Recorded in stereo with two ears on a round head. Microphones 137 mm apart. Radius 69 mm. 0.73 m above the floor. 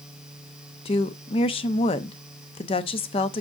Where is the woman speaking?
35° left (ahead or behind), 0.6 m.